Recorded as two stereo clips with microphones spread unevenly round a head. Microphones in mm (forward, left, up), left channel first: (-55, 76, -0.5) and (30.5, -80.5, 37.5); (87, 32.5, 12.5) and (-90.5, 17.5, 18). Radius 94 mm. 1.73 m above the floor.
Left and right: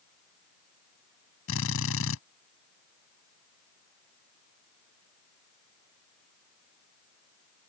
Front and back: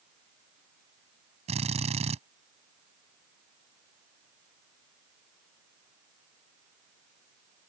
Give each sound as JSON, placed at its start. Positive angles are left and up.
{"t": 1.5, "sound": "a drill", "azimuth_deg": 130}